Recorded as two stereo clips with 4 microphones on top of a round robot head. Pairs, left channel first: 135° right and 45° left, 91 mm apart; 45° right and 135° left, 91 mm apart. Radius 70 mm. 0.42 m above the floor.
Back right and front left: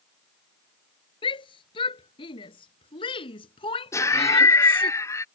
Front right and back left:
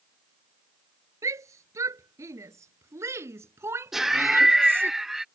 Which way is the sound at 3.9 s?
140° right.